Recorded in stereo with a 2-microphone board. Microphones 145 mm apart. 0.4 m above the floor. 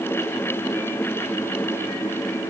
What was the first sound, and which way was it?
Only background noise.